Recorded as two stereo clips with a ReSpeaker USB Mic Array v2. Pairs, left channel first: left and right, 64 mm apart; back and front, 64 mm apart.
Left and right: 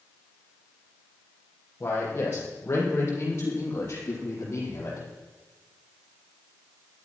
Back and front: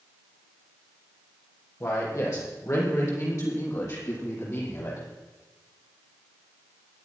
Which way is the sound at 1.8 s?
145° left.